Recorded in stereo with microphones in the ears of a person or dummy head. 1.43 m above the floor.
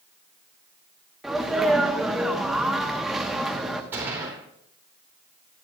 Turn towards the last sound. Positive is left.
turn(degrees=-10)  # may be behind; listen again after turning